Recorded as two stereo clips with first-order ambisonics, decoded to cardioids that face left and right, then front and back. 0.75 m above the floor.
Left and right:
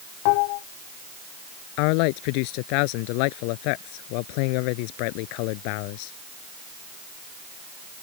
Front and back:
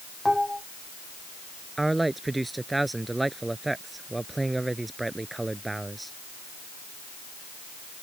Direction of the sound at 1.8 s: 95° left.